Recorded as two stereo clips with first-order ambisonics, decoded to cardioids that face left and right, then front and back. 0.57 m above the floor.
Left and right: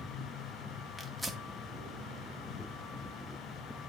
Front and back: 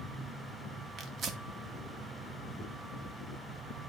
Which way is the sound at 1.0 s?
Straight behind.